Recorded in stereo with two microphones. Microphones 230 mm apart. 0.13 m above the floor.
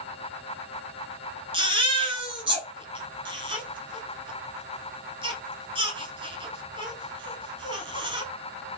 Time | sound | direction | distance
1.5 | a baby crying | 25° right (ahead or behind) | 1.1 m